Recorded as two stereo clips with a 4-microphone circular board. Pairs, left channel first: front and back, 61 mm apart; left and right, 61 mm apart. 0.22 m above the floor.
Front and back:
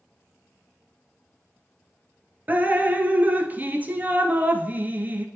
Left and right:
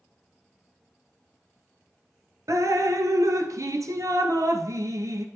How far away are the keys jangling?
I don't hear keys jangling.